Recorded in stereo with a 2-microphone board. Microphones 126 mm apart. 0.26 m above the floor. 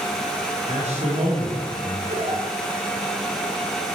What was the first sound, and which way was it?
A man speaking, 70° right (ahead or behind).